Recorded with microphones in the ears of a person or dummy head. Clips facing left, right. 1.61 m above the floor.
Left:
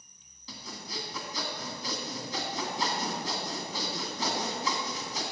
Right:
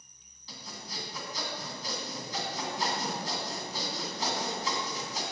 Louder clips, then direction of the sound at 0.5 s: Left 3 dB; 65° left (ahead or behind).